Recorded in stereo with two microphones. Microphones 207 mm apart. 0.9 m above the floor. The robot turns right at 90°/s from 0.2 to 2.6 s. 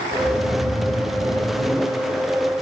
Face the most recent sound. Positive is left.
turn(degrees=115)